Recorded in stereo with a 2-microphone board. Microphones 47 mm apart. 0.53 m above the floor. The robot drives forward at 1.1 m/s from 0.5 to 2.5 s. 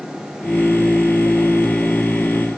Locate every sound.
Only background noise.